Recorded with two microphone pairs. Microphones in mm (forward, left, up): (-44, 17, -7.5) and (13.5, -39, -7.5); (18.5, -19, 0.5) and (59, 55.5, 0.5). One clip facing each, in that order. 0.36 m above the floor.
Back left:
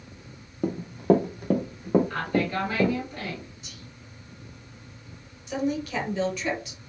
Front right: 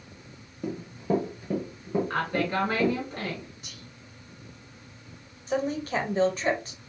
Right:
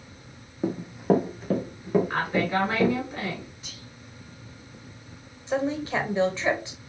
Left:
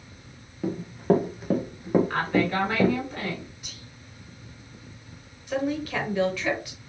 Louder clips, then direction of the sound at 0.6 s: Back left 9 dB, even; 170° left.